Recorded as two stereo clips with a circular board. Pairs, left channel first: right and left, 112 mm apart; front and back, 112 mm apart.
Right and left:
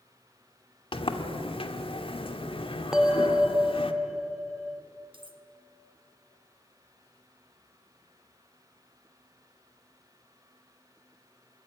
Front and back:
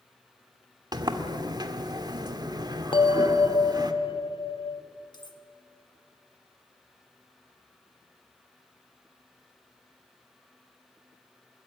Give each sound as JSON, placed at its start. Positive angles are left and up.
{"t": 0.9, "sound": "a sliding door", "azimuth_deg": -125, "distance_m": 1.5}
{"t": 2.9, "sound": "a bell", "azimuth_deg": 5, "distance_m": 1.0}
{"t": 5.1, "sound": "cutlery clinking", "azimuth_deg": 50, "distance_m": 1.6}